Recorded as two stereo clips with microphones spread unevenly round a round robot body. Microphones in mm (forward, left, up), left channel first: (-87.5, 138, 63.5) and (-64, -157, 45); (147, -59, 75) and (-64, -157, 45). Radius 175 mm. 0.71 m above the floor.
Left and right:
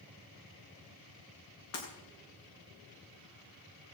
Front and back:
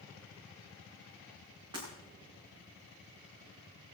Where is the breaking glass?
130° left, 5.5 m.